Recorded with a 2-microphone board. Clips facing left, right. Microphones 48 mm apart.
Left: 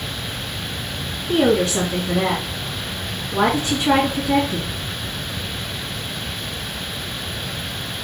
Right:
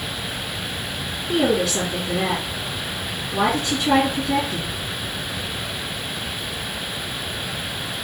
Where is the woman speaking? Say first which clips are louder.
Left 3 dB; 35° left (ahead or behind), 2.5 m.